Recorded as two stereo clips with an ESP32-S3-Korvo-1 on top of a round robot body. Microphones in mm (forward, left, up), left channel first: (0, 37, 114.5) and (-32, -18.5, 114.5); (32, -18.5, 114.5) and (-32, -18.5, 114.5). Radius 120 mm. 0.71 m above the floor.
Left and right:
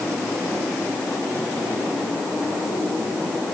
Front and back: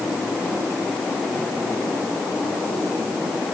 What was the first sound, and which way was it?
Only background noise.